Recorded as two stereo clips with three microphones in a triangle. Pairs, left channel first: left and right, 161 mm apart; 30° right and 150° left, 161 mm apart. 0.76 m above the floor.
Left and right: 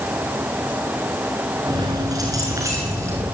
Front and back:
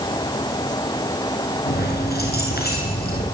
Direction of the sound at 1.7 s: 25° right.